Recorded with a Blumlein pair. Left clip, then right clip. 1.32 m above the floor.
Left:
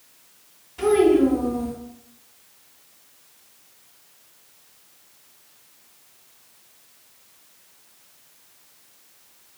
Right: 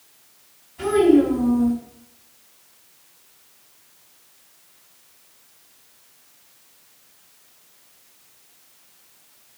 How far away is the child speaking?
About 1.4 m.